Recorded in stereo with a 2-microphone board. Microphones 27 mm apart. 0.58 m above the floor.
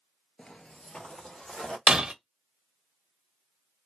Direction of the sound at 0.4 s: 35° left (ahead or behind).